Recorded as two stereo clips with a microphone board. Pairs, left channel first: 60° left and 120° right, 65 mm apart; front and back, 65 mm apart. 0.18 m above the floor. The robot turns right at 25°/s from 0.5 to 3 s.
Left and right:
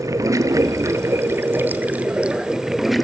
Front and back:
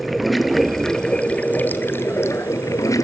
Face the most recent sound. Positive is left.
turn(degrees=-30)